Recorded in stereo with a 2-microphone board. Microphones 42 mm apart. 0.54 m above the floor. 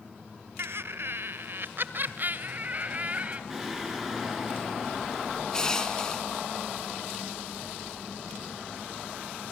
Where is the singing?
5° right (ahead or behind), 6 m.